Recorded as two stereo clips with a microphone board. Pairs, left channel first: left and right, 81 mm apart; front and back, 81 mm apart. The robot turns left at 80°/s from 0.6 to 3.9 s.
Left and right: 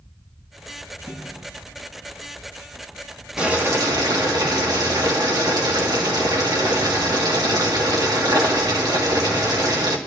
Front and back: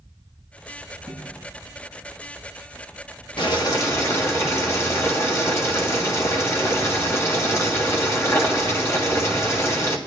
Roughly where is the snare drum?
Behind.